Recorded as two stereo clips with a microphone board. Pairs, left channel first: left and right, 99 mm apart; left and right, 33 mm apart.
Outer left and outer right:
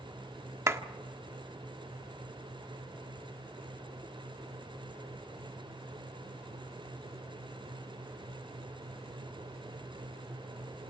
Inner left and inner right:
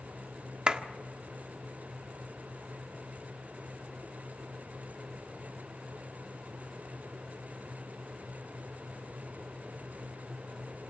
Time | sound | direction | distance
0.7 | a clap | 30° right (ahead or behind) | 1.5 m